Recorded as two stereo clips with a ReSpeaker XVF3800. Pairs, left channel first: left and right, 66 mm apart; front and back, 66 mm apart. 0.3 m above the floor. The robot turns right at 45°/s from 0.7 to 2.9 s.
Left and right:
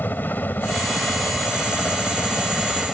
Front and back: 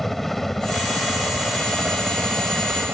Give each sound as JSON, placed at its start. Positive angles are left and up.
{"t": 0.0, "sound": "a helicopter", "azimuth_deg": 85}